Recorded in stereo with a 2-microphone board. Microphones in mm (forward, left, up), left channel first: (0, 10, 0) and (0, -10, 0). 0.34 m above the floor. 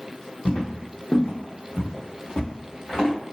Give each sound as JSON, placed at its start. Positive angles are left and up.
{"t": 0.5, "sound": "footsteps", "side_deg": 70, "distance_m": 1.1}